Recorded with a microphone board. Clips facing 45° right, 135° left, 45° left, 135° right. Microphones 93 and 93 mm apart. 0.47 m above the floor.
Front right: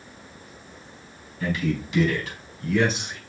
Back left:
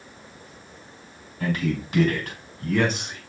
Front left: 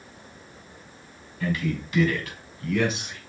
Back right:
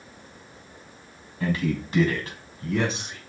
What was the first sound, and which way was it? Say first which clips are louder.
A man speaking: even, back right 2 dB; 175° left.